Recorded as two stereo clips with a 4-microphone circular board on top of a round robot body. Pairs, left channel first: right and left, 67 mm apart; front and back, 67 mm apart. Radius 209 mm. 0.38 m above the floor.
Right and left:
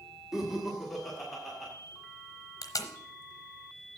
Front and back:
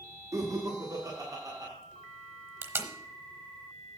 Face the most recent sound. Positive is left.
turn(degrees=-130)